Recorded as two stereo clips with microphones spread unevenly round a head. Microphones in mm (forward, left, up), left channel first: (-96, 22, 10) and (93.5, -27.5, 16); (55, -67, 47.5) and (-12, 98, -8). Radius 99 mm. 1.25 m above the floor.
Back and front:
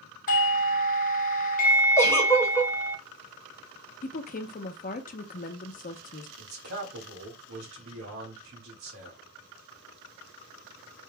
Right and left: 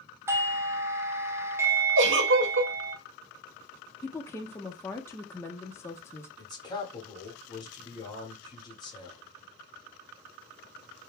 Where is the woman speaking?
145° right, 0.7 m.